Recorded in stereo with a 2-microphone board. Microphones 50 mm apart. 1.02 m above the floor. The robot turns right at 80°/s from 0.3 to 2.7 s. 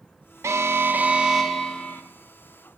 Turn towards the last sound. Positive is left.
turn(degrees=100)